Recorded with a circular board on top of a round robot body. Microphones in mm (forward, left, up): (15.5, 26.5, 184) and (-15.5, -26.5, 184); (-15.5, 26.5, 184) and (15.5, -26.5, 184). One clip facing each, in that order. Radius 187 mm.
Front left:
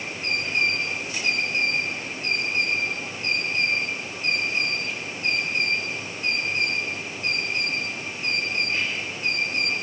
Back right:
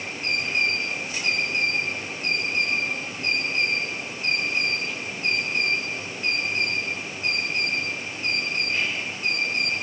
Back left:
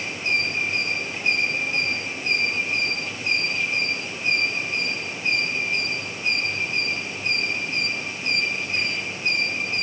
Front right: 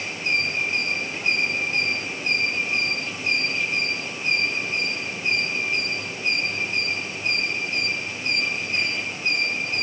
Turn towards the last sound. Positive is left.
No sound to turn to.